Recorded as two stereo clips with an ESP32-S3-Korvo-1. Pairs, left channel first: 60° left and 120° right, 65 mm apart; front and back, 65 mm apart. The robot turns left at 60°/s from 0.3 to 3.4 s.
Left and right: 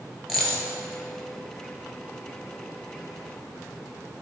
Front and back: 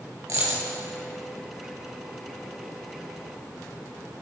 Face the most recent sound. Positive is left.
turn(degrees=-35)